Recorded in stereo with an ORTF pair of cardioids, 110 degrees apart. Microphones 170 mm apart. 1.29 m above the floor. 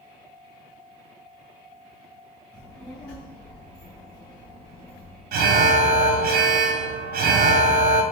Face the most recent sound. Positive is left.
turn(degrees=-65)